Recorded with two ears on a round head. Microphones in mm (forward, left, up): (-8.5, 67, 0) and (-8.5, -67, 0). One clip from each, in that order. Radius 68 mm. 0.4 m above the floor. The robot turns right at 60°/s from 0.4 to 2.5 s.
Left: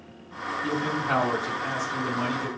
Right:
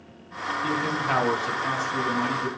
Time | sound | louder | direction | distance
0.6 | a man speaking | right 1 dB | 85° right | 3.5 m